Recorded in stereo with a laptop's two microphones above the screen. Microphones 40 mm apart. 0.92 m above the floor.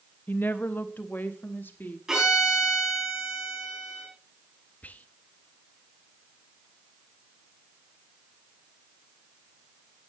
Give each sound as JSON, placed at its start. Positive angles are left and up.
{"t": 0.3, "sound": "a woman speaking", "side_deg": 55, "distance_m": 1.0}
{"t": 2.1, "sound": "a violin", "side_deg": -15, "distance_m": 6.0}
{"t": 4.8, "sound": "whispering", "side_deg": 40, "distance_m": 0.9}